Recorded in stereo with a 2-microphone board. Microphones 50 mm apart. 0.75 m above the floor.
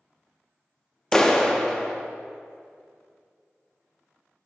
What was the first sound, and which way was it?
A clap, 10° left (ahead or behind).